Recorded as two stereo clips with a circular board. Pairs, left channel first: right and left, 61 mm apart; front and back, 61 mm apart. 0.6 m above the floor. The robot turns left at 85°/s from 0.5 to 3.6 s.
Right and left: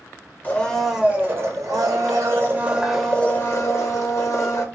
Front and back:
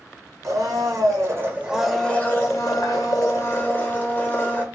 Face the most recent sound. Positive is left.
turn(degrees=-55)